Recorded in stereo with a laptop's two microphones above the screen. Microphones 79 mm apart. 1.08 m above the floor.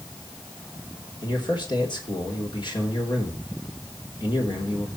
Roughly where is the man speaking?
Left.